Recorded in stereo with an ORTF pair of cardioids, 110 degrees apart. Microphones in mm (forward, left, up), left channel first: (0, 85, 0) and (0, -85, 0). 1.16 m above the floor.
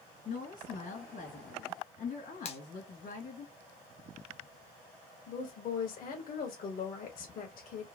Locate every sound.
0.2 s a woman speaking: 60° left, 1.9 m
2.5 s a finger snap: 40° left, 0.8 m
5.3 s a woman speaking: 65° left, 1.3 m